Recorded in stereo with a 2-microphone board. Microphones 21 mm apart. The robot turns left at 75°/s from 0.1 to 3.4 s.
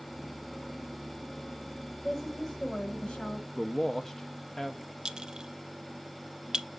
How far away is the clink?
About 0.6 m.